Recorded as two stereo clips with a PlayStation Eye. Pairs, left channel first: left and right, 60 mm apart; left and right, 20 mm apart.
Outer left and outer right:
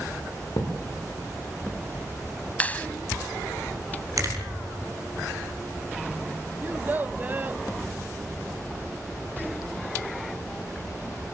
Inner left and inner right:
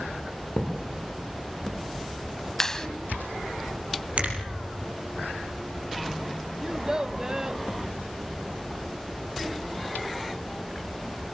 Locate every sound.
0.6 s a thud: 70° left (ahead or behind), 6 m
2.6 s a clap: 25° left (ahead or behind), 1.0 m
4.2 s a finger snap: 60° right (ahead or behind), 5 m
6.6 s a child speaking: 30° right (ahead or behind), 0.6 m